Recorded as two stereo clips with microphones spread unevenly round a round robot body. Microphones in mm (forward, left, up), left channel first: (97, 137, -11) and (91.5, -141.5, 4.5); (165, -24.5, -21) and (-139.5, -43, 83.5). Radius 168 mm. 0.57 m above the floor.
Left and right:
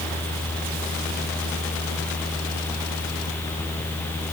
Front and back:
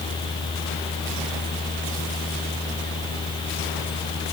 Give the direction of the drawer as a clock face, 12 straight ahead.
I don't hear a drawer.